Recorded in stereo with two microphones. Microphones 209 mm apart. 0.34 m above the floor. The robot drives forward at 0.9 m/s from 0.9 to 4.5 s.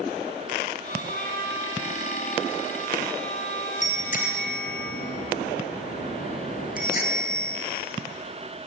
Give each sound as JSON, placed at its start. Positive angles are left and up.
{"t": 1.1, "sound": "a trumpet", "side_deg": 65, "distance_m": 9.5}
{"t": 3.8, "sound": "a bicycle bell", "side_deg": 40, "distance_m": 5.0}